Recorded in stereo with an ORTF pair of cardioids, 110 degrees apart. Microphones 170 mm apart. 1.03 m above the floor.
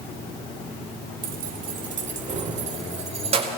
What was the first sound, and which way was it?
Keys jangling, 55° right.